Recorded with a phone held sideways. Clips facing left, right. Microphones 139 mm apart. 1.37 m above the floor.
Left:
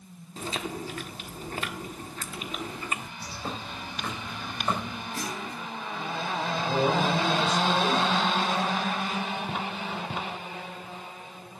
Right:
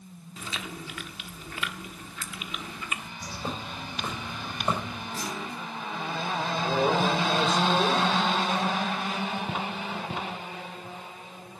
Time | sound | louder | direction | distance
0.4 | chewing | left 5 dB | 35° left (ahead or behind) | 1.2 m
3.2 | a bird | right 1 dB | 15° right (ahead or behind) | 4.5 m
5.1 | a clunk | right 1 dB | 30° right (ahead or behind) | 7.5 m
6.6 | a man speaking | right 1 dB | 30° right (ahead or behind) | 6.5 m